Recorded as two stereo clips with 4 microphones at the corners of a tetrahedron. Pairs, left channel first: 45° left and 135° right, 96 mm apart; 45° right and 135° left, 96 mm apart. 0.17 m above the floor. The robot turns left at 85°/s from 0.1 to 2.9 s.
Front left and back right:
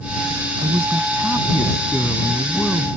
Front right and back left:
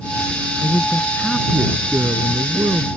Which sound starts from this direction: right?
A man speaking, at 0.6 s.